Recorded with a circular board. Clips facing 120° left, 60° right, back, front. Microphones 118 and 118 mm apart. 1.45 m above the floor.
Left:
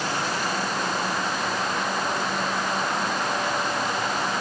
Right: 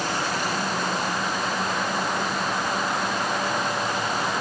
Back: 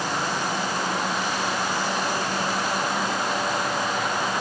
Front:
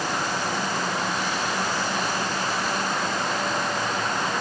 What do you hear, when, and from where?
Only background noise.